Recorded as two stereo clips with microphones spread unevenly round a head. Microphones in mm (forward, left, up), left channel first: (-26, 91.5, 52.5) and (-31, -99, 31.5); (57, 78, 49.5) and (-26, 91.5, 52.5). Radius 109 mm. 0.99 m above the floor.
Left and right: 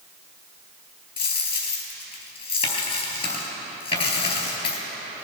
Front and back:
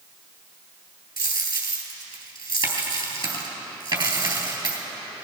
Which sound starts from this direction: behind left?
A dropped coin, at 1.2 s.